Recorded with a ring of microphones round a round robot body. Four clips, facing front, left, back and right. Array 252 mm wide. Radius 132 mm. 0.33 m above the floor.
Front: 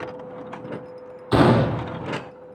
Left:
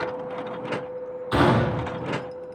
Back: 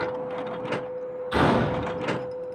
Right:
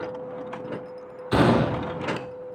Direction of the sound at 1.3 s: 25° right.